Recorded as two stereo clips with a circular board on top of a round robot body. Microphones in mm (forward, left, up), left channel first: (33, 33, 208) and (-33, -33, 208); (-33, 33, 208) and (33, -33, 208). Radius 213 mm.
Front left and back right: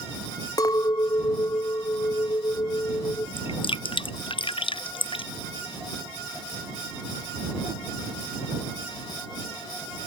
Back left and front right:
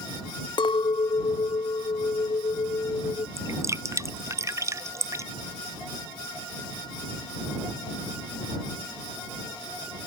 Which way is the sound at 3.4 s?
15° left.